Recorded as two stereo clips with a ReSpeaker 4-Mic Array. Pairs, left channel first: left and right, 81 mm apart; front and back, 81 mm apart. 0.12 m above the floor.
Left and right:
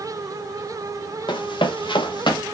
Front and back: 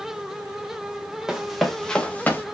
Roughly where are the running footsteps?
Left.